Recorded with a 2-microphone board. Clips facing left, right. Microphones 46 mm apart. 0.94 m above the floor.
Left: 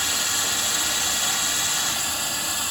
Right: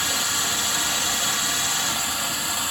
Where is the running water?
25° right (ahead or behind), 6 m.